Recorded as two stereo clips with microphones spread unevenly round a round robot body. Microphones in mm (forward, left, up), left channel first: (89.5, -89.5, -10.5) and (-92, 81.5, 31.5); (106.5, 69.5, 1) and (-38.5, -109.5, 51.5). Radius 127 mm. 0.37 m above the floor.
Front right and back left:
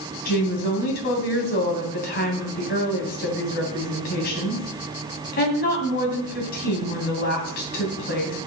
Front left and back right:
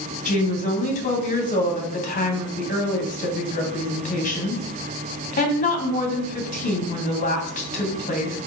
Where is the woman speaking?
5° left, 2.5 m.